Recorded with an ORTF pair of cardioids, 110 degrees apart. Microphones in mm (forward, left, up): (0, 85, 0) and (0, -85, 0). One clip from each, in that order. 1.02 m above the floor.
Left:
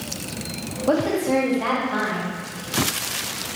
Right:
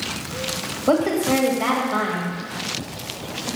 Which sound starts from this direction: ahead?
A woman speaking, at 0.9 s.